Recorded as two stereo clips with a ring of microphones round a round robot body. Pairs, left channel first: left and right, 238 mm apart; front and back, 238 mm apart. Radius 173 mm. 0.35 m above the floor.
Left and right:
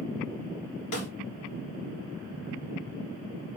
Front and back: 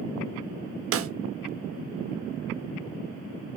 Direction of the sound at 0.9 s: 140° left.